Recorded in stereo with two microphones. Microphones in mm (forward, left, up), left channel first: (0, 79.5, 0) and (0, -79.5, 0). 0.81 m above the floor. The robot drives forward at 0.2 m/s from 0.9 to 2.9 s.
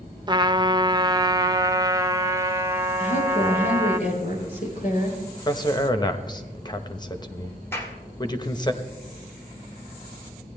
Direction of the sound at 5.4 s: 25° left (ahead or behind).